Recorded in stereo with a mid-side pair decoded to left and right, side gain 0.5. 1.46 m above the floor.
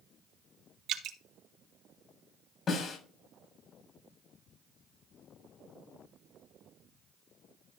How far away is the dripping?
About 1.7 m.